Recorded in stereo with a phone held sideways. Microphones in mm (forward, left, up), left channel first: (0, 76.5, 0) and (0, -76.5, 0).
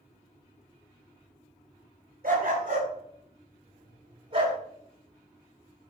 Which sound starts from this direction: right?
A dog barking, at 2.2 s.